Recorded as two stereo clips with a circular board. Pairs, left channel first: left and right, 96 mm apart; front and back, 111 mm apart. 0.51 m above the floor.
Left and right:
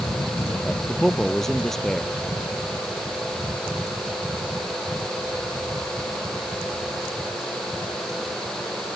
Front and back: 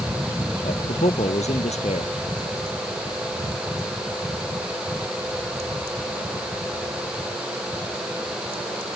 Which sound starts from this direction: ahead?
A man speaking, at 0.6 s.